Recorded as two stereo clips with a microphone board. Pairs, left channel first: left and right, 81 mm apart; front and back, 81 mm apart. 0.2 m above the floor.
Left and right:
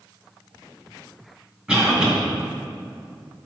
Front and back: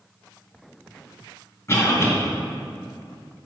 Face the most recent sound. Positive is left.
turn(degrees=-20)